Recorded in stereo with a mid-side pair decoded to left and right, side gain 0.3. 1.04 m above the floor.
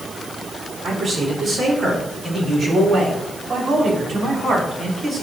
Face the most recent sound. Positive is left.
turn(degrees=-55)